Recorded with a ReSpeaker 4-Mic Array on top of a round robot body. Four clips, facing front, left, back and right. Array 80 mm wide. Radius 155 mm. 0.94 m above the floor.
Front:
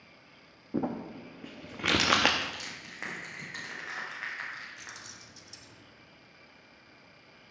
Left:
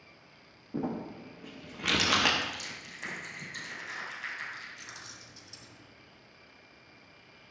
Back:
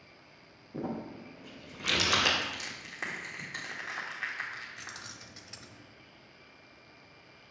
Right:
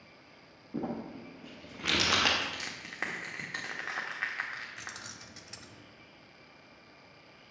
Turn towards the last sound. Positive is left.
turn(degrees=-120)